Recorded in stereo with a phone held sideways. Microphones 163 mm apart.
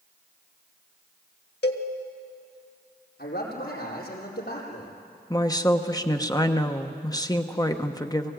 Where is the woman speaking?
20° left (ahead or behind), 1.0 m.